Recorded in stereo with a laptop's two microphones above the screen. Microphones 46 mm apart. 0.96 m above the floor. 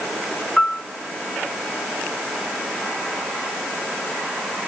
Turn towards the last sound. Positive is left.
turn(degrees=15)  # may be behind; listen again after turning